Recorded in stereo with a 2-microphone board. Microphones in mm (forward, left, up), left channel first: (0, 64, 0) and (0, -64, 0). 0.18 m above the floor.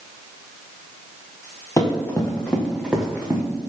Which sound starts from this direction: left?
Running footsteps, at 1.8 s.